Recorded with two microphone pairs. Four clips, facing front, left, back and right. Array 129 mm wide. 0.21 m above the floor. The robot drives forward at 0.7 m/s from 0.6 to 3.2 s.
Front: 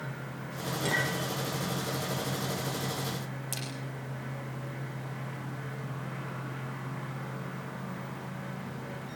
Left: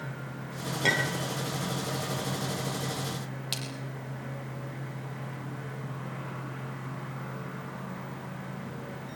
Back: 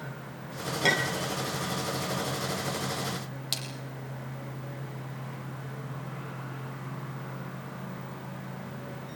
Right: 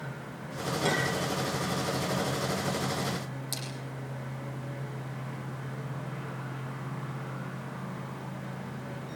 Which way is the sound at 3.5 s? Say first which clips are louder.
Left 1 dB, even; 130° left.